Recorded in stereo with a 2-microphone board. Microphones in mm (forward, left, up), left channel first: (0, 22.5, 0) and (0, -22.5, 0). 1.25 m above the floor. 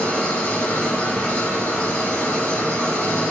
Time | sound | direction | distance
0.0 | an engine running | 60° left (ahead or behind) | 1.8 m